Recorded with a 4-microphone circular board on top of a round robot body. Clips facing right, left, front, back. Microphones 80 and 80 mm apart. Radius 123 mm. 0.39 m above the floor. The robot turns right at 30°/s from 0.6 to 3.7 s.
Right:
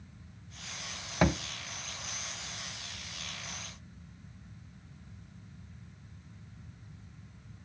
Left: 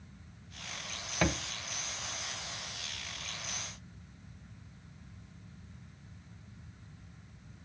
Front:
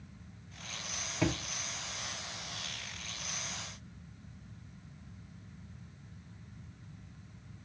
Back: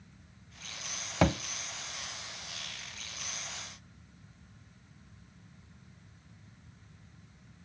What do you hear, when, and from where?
1.2 s a thud: 160° right, 0.6 m; by 1.4 s 155° right, 0.6 m